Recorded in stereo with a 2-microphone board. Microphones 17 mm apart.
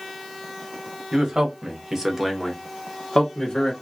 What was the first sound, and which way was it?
A man speaking, 50° right (ahead or behind).